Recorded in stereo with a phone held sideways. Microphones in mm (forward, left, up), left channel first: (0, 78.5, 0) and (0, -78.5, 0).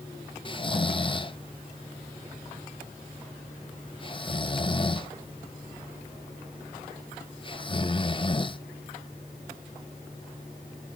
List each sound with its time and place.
0.5 s snoring: 35° left (ahead or behind), 0.6 m